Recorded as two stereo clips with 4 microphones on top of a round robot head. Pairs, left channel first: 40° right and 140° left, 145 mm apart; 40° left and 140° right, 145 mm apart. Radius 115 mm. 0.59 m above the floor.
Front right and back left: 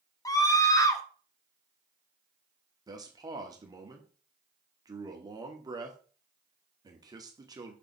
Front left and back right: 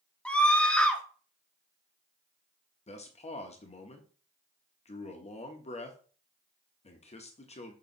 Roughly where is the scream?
Ahead right.